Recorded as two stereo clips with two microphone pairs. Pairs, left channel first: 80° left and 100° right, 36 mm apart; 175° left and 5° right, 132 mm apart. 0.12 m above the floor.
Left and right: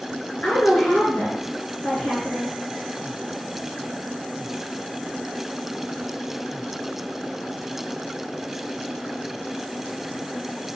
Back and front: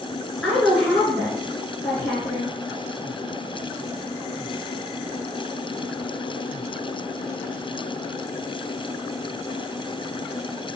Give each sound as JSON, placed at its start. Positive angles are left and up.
{"t": 0.4, "sound": "a woman speaking", "azimuth_deg": 100, "distance_m": 1.3}